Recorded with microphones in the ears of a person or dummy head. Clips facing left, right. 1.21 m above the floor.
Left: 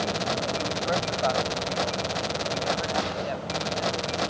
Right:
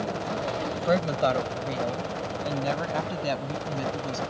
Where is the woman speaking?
55° right (ahead or behind); by 4.2 s 65° right (ahead or behind).